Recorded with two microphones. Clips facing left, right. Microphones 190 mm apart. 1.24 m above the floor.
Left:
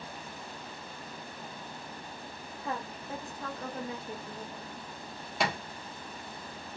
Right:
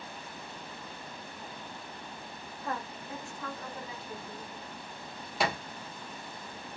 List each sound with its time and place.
2.6 s a woman speaking: 15° left (ahead or behind), 0.8 m; by 4.8 s 70° left (ahead or behind), 1.0 m
5.4 s a thud: centre (ahead or behind), 1.0 m